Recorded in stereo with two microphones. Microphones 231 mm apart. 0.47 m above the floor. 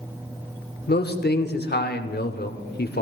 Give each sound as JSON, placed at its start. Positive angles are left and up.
{"t": 0.9, "sound": "a man speaking", "side_deg": 45, "distance_m": 1.0}